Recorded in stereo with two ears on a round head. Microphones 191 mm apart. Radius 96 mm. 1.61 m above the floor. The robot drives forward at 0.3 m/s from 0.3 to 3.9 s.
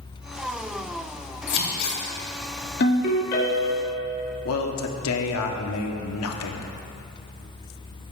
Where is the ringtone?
55° left (ahead or behind), 1.8 m; by 3.9 s 50° left (ahead or behind), 2.0 m.